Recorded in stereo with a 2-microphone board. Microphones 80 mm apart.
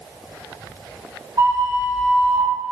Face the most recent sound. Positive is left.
turn(degrees=-55)  # may be behind; listen again after turning